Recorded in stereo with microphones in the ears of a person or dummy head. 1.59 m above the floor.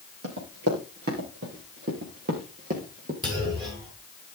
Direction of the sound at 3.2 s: 30° right (ahead or behind).